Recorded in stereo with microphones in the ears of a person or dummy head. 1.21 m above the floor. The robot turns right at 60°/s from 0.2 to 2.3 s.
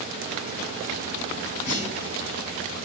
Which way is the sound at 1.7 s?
80° left.